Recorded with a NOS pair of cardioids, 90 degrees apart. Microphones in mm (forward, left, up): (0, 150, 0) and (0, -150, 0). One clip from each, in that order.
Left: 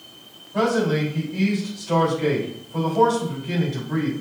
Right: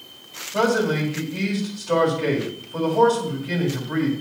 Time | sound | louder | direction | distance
0.5 | a man speaking | right 1 dB | 30° right | 4 m